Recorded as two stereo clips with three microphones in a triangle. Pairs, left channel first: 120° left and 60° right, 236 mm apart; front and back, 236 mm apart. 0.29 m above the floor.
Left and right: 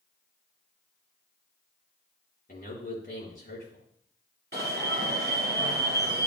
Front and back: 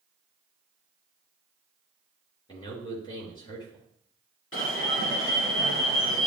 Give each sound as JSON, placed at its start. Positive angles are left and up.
{"t": 2.5, "sound": "a man speaking", "azimuth_deg": 70, "distance_m": 4.5}
{"t": 4.5, "sound": "an alarm", "azimuth_deg": -15, "distance_m": 3.0}